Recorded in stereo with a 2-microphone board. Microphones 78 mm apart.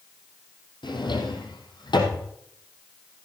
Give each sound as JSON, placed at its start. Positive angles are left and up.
{"t": 0.8, "sound": "a drawer", "side_deg": 75, "distance_m": 3.5}